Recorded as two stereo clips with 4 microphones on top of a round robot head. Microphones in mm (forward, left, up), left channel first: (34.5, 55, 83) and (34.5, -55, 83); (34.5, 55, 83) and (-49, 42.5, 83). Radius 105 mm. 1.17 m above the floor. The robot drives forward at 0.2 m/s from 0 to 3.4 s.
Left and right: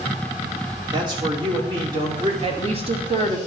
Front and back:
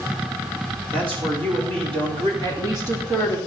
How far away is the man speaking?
About 2.5 m.